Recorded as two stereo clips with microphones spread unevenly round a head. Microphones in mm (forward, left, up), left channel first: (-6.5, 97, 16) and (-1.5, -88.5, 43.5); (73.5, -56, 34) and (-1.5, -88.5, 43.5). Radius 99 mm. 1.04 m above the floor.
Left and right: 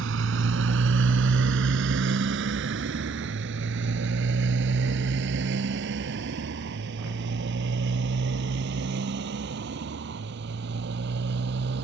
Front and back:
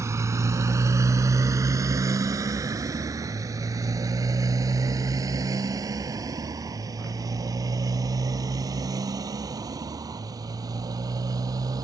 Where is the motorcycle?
105° right; by 11.8 s 120° right.